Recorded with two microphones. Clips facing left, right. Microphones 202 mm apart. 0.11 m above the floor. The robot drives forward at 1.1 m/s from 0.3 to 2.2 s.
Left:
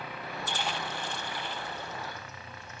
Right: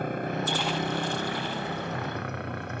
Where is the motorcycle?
50° right (ahead or behind); by 2.8 s 60° right (ahead or behind).